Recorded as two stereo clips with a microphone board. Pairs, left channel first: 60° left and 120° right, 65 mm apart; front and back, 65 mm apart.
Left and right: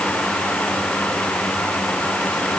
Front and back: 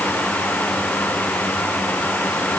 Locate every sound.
Only background noise.